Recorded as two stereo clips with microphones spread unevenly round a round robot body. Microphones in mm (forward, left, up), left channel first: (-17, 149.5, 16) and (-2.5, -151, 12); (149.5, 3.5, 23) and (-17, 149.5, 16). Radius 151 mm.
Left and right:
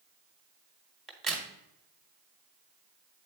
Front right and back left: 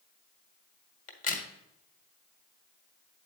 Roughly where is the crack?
Ahead.